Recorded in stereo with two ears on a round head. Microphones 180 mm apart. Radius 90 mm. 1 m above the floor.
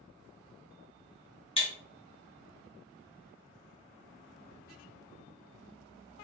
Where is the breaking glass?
30° left (ahead or behind), 1.8 m.